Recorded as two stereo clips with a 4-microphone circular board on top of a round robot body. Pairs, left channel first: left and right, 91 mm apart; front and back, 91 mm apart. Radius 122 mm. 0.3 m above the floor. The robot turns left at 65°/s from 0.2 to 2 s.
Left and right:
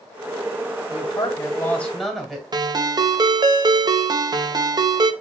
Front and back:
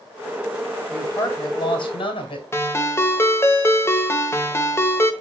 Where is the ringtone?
55° right, 1.3 m.